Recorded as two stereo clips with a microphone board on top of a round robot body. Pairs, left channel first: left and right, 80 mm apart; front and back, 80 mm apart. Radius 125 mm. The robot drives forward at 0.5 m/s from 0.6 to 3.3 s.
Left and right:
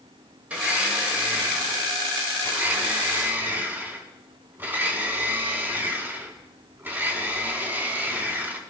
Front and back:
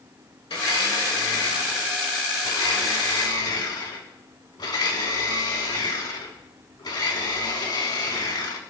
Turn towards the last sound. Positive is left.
turn(degrees=-25)